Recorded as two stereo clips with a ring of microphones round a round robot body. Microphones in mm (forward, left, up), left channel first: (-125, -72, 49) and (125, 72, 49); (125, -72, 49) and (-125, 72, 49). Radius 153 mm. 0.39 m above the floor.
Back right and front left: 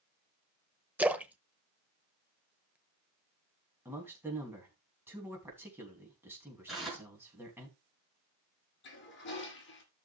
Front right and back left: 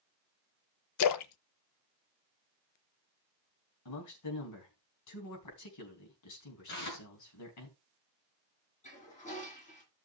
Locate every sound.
1.0 s a splash: 55° right, 0.7 m
3.9 s a man speaking: 50° right, 3.5 m
6.7 s tearing paper: 60° right, 4.5 m
8.8 s a toilet flushing: 95° right, 3 m